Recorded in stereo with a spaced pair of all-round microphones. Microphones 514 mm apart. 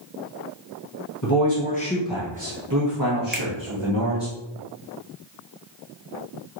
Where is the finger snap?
20° right (ahead or behind), 0.5 m.